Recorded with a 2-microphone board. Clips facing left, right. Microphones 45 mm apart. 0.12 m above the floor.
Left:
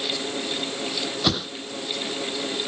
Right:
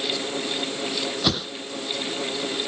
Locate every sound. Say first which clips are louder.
1.2 s a whoosh: left 1 dB; 5° left (ahead or behind)